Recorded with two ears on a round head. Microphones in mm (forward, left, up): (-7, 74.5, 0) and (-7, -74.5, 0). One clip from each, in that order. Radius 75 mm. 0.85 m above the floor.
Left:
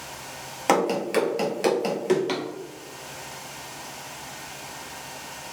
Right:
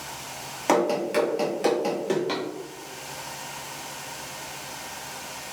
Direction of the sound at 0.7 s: 15° left (ahead or behind).